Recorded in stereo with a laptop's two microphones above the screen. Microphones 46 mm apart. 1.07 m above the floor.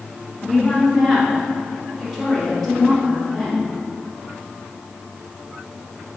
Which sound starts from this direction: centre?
A woman speaking, at 0.4 s.